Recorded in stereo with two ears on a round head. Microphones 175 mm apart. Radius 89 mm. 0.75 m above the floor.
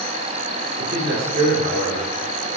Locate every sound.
0.8 s a man speaking: 45° right (ahead or behind), 2 m; by 2.1 s 55° right (ahead or behind), 3 m